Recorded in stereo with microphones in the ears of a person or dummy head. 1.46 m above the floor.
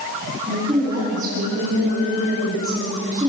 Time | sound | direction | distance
0.5 | a woman speaking | 15° right (ahead or behind) | 9.5 m